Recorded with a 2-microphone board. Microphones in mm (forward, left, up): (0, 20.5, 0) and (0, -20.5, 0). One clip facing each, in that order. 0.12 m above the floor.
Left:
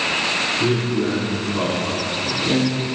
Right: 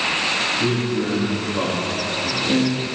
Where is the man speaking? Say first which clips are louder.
Left 1 dB; centre (ahead or behind), 6.5 m.